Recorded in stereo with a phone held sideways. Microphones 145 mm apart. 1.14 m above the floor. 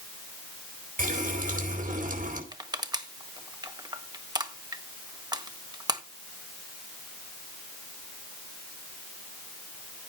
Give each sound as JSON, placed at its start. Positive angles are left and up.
{"t": 1.0, "sound": "a running tap", "side_deg": -70, "distance_m": 4.0}
{"t": 2.5, "sound": "crushing", "side_deg": -30, "distance_m": 1.3}